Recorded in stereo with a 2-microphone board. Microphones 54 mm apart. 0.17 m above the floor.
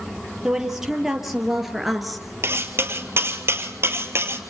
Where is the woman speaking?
10° right (ahead or behind), 4.5 m; by 2.3 s centre (ahead or behind), 2.5 m.